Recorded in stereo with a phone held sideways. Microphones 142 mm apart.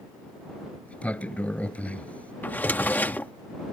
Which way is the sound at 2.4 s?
15° left (ahead or behind).